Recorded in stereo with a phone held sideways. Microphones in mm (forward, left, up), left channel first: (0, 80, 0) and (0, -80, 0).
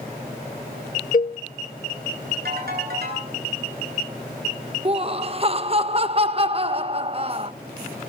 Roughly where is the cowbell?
Left.